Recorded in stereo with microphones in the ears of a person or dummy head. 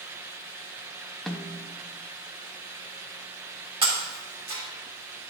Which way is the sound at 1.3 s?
Centre (ahead or behind).